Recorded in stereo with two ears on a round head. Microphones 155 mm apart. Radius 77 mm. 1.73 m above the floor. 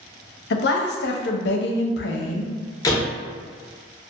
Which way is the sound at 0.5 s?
70° left (ahead or behind).